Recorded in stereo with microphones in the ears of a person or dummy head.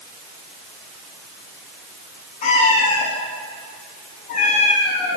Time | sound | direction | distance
2.4 | a cat meowing | 40° left (ahead or behind) | 7 m